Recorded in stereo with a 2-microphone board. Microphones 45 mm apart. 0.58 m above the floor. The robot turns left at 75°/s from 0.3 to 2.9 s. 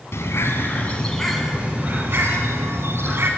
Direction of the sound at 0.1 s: 75° left.